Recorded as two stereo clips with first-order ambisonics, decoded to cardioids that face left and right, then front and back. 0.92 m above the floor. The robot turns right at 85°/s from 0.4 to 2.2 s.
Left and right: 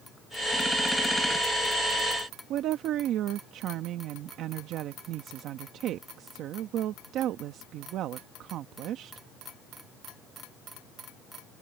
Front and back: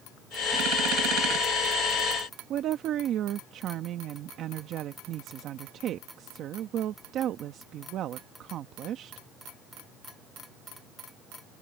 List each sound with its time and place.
2.5 s a woman speaking: 130° right